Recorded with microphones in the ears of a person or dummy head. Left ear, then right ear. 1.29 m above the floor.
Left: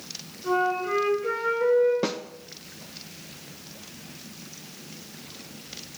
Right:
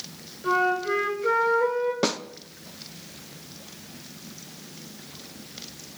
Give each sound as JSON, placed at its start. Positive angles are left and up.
{"t": 0.4, "sound": "a flute", "side_deg": -85, "distance_m": 7.0}
{"t": 2.0, "sound": "a snare drum", "side_deg": -25, "distance_m": 0.6}